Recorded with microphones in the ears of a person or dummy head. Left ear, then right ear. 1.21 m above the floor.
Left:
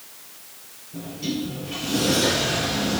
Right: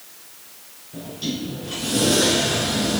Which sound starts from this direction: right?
A sliding door, at 0.9 s.